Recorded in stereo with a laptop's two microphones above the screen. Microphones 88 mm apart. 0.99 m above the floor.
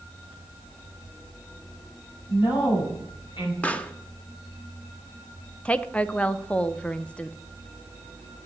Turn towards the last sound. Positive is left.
turn(degrees=15)  # may be behind; listen again after turning